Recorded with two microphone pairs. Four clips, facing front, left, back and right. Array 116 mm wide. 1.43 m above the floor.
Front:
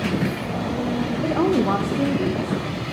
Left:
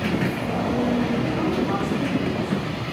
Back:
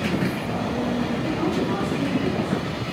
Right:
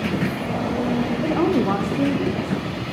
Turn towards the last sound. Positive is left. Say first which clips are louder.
# right 4 dB, front 4 dB
turn(degrees=-40)